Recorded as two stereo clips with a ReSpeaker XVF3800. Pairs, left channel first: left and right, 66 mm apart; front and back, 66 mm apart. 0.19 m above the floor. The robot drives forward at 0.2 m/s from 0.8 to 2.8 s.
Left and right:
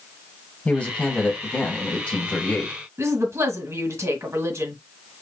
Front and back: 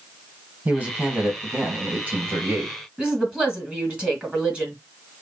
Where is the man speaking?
140° left, 1.7 m; by 2.8 s 150° left, 1.9 m.